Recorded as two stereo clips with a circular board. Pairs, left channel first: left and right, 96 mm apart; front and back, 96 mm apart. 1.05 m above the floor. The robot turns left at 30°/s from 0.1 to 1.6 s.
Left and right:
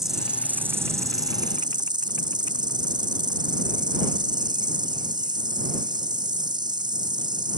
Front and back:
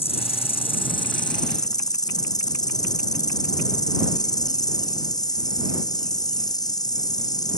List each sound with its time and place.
0.0 s an insect: 5° right; by 7.6 s 50° right